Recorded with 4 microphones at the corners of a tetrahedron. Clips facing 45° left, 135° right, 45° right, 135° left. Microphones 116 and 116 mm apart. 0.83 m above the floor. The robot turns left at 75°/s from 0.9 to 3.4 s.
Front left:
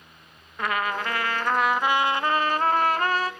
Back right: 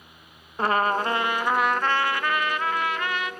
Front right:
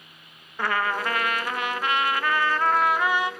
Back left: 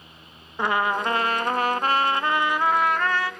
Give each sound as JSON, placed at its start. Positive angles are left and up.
{"t": 0.6, "sound": "a trumpet", "azimuth_deg": -170, "distance_m": 0.7}